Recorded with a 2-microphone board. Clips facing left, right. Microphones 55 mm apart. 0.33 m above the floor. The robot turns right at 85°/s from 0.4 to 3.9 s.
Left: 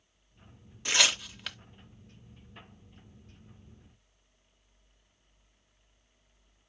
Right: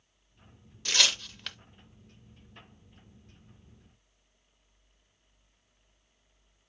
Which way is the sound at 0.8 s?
15° left (ahead or behind).